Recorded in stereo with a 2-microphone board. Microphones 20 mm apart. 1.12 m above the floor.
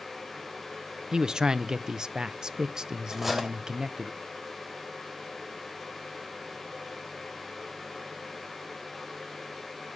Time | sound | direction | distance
1.1 | a man speaking | 40° right (ahead or behind) | 0.6 m
3.1 | cutlery clinking | 10° right (ahead or behind) | 3 m